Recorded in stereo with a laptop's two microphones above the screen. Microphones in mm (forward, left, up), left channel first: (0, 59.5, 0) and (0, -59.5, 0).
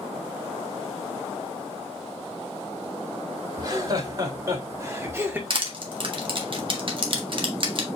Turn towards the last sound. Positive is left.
turn(degrees=-45)  # may be behind; listen again after turning